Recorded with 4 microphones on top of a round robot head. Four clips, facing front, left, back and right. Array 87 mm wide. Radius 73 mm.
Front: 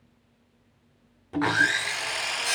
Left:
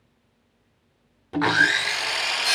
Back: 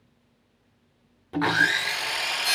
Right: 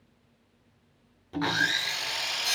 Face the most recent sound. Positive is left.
turn(degrees=105)